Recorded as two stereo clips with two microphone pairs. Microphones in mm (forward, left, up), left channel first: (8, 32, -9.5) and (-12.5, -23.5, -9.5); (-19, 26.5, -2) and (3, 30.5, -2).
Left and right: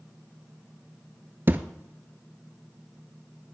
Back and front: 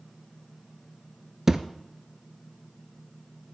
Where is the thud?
60° right, 0.7 m.